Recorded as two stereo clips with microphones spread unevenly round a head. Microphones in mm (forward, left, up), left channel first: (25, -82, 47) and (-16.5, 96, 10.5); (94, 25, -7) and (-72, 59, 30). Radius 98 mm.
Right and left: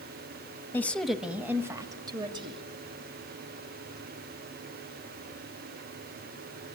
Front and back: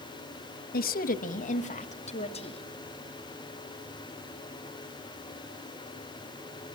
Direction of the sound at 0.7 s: 5° left.